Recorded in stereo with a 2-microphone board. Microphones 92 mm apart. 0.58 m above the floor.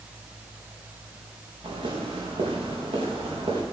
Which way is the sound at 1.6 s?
70° right (ahead or behind).